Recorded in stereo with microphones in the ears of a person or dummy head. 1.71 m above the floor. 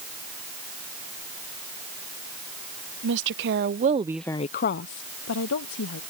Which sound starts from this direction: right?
A woman speaking, at 3.0 s.